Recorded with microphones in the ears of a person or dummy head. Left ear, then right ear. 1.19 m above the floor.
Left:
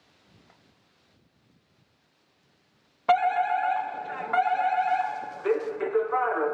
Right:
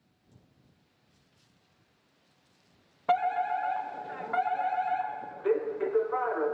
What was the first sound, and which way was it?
A fire alarm, 20° left (ahead or behind).